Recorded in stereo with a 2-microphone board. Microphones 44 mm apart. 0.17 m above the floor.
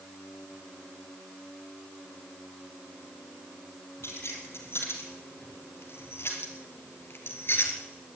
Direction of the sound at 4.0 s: 75° left (ahead or behind).